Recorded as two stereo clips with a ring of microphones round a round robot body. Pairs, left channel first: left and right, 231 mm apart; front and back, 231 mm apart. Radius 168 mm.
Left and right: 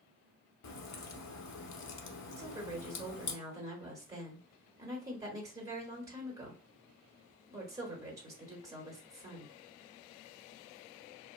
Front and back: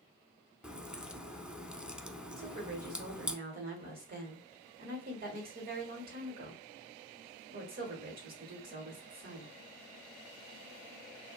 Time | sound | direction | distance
0.6 | a crack | 95° left | 0.7 m
2.4 | a woman speaking | 160° right | 1.2 m